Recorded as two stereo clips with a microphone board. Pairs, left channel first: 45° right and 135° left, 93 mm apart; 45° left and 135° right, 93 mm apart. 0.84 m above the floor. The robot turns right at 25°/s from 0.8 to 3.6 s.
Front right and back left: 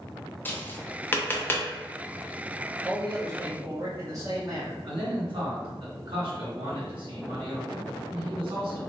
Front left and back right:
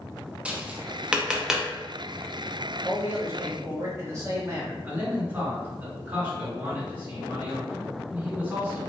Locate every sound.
0.5 s tapping: 80° right, 0.5 m; by 1.7 s 60° right, 0.5 m
2.8 s a man speaking: 160° left, 1.2 m; by 4.7 s 175° left, 1.2 m
4.8 s a man speaking: 155° left, 1.9 m